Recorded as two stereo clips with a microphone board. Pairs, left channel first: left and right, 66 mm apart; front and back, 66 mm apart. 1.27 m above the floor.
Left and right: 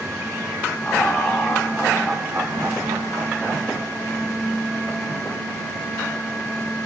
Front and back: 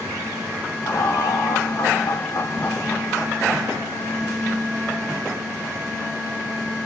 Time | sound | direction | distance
0.8 | laughter | 25° left | 1.7 m